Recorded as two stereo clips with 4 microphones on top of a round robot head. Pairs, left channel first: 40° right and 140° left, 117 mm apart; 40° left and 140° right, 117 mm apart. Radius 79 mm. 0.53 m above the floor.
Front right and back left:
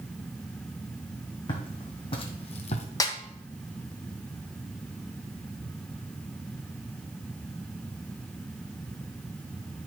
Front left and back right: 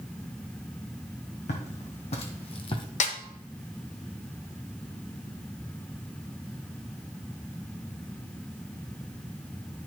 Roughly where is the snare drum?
Ahead.